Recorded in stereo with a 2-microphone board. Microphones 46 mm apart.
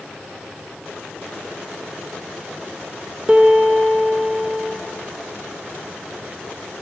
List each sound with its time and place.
3.3 s a piano: 20° right (ahead or behind), 0.6 m